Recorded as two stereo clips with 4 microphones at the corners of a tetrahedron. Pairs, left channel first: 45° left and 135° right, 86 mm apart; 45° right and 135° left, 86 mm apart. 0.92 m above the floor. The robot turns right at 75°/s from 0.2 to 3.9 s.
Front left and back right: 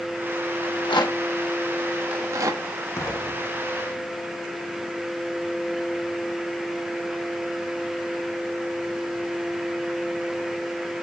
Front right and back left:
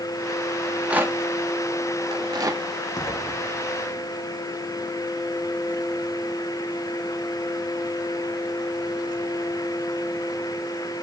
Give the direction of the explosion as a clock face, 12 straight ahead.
12 o'clock.